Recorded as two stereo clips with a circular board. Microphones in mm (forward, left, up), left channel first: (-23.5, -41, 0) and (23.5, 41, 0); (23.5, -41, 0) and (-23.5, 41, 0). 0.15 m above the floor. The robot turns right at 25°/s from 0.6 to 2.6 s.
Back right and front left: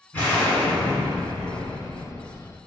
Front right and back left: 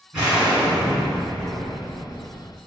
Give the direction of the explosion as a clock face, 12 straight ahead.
6 o'clock.